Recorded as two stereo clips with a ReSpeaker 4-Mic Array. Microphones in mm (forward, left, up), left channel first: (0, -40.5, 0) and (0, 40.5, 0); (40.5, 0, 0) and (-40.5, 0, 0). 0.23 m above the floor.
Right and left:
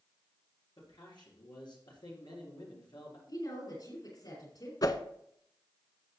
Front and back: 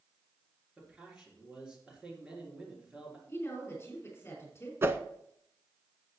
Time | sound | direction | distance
0.8 | a man speaking | 100° right | 4 m
3.3 | a woman speaking | 60° right | 5.5 m
4.8 | a whoosh | 125° right | 0.6 m